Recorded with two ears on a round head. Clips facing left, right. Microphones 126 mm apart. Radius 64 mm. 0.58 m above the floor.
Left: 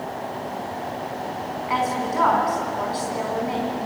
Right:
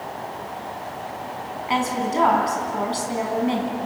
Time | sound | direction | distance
1.7 | a woman speaking | 30° right (ahead or behind) | 5 m